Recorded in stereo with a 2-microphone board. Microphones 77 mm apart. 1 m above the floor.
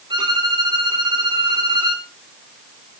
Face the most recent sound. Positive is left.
turn(degrees=-80)